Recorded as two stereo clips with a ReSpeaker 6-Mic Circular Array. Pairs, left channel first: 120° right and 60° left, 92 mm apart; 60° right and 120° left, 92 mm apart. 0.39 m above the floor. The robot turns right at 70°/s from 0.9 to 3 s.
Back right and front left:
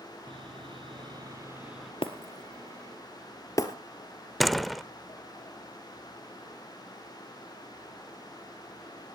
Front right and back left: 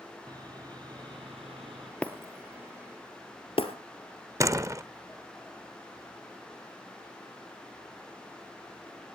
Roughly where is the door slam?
Behind left.